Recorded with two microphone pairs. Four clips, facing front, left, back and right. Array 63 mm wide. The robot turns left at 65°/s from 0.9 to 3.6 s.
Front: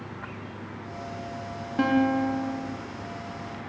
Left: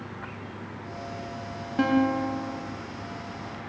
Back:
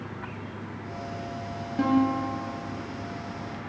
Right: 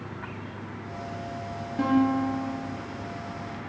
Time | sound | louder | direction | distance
1.8 | a guitar | even, front 1 dB | 50° left | 0.8 m